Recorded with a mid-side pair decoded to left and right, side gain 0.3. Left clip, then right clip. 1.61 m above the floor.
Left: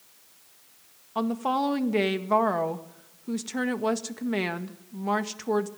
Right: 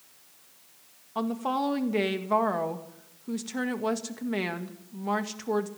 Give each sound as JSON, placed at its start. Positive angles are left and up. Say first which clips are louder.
{"t": 1.1, "sound": "a woman speaking", "louder": "left 2 dB", "azimuth_deg": 25, "distance_m": 1.9}